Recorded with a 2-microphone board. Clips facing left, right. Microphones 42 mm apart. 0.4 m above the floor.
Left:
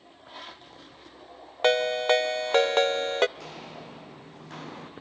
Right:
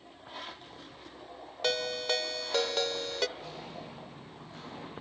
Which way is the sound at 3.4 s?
80° left.